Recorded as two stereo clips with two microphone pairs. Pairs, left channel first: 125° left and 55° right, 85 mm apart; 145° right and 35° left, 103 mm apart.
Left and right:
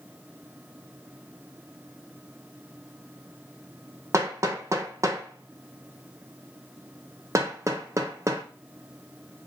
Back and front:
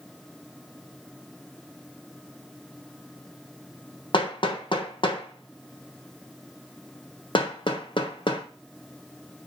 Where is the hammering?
110° right, 0.8 m.